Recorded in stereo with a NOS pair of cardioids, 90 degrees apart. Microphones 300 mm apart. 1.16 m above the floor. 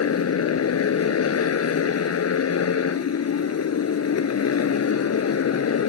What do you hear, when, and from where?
0.0 s a motorcycle: 55° left